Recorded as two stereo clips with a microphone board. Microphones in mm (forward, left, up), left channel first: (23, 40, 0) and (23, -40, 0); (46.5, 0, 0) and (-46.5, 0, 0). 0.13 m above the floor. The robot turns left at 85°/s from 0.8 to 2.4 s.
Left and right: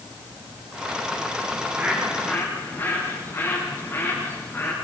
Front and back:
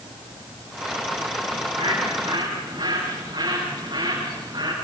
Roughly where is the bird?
Behind right.